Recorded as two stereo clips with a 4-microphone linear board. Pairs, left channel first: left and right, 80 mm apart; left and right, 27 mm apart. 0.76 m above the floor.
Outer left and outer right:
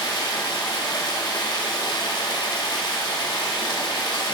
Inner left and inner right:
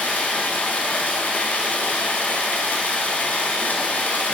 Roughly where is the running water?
Left.